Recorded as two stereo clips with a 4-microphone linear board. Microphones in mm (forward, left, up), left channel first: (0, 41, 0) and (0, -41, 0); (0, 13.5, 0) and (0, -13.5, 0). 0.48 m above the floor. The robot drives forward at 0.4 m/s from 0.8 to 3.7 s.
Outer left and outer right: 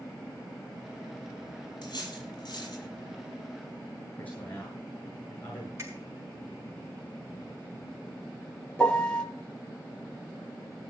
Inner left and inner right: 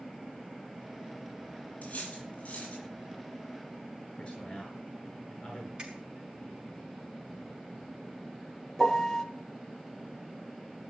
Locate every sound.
1.8 s cutlery clinking: 55° left (ahead or behind), 8 m
4.2 s a man speaking: 20° left (ahead or behind), 8 m
5.8 s a finger snap: 35° right (ahead or behind), 5.5 m
8.8 s a piano: 10° left (ahead or behind), 1.7 m